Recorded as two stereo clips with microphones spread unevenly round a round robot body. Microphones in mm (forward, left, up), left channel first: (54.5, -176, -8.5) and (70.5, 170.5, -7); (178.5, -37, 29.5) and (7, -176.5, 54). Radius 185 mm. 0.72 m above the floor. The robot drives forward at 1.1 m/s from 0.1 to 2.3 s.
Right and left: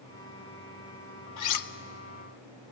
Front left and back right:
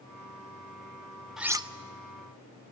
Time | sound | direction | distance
1.4 | cutlery clinking | 50° right | 0.9 m